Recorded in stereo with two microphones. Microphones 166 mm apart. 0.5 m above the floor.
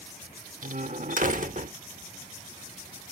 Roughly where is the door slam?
Right.